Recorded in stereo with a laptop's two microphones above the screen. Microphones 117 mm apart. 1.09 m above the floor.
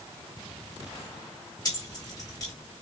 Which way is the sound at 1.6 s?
35° left (ahead or behind).